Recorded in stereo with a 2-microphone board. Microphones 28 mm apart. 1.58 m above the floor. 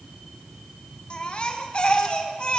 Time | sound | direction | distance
1.1 | a baby crying | 35° left (ahead or behind) | 1.3 m